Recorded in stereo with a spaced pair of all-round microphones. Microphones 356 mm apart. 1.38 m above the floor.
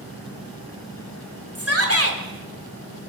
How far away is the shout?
About 4 m.